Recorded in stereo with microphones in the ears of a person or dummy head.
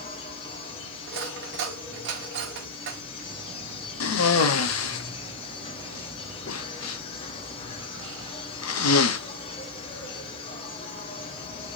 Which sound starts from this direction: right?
Cutlery clinking, at 1.1 s.